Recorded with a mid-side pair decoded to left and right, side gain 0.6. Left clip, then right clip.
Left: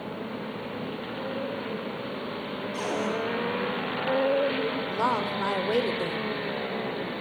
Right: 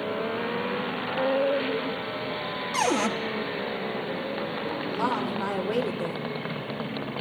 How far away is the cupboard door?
About 0.7 m.